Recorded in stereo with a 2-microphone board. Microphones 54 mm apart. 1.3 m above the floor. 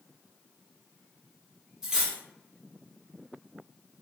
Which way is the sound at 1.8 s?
10° right (ahead or behind).